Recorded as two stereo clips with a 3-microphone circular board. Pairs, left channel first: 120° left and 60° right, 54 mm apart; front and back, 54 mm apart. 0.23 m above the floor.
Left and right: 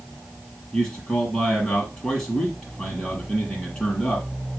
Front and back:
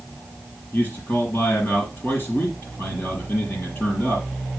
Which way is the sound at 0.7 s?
45° left.